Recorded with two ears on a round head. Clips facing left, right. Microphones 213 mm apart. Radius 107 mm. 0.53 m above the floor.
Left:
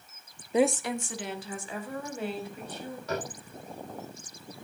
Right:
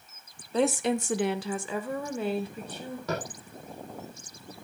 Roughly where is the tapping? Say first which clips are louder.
Even; right.